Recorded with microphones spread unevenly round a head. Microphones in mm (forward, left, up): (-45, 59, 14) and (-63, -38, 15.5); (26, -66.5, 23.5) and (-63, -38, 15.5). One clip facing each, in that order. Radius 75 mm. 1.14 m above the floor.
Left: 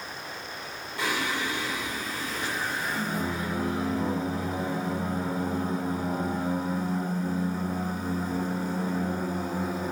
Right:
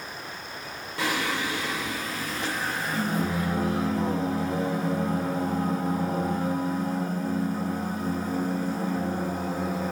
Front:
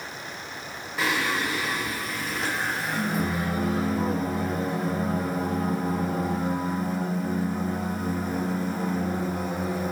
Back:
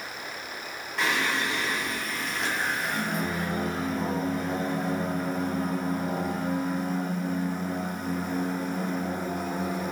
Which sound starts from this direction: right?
Singing, at 1.0 s.